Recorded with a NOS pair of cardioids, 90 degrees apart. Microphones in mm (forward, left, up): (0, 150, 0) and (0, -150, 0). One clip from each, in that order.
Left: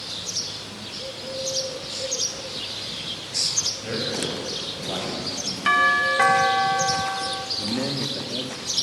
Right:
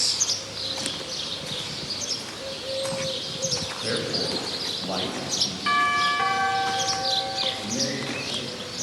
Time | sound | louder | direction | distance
3.8 | a man speaking | right 1 dB | 25° right | 9 m
5.7 | a doorbell | left 4 dB | 40° left | 2 m
7.6 | a man speaking | left 1 dB | 30° left | 3.5 m